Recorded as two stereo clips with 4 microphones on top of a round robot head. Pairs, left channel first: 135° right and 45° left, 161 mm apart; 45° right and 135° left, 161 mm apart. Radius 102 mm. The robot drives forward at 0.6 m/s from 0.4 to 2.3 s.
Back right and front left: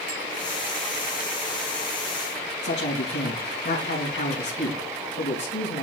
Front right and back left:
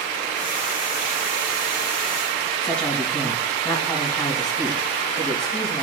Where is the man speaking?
130° right, 4 m.